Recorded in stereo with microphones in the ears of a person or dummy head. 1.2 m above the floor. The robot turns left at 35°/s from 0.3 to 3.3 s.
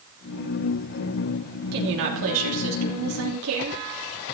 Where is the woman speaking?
55° right, 3 m; by 3.8 s 115° right, 3 m.